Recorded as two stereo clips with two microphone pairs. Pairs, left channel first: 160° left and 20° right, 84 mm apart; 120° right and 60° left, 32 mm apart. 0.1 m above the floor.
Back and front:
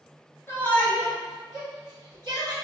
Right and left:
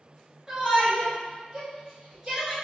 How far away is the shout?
About 1.3 m.